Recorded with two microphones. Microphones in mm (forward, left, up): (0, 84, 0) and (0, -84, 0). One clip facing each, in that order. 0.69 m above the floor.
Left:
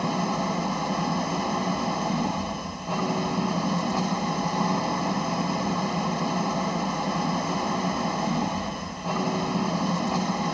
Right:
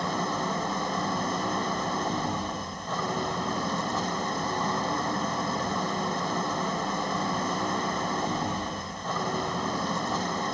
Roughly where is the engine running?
Centre.